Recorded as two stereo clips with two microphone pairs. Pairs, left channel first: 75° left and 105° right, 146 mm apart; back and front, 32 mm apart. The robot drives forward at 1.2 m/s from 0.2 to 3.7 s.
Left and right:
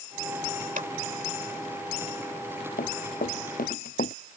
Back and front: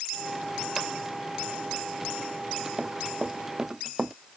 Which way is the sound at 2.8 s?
60° left.